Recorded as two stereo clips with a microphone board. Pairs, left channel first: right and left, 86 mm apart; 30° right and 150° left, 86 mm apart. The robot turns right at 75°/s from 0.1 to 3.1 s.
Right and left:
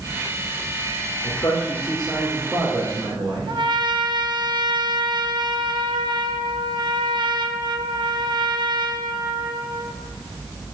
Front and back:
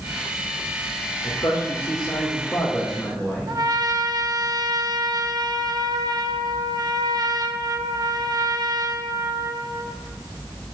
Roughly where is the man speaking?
Right.